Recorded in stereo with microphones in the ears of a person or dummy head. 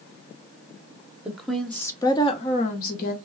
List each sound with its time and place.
1.2 s a woman speaking: 10° right (ahead or behind), 1.1 m; by 3.1 s 55° left (ahead or behind), 1.2 m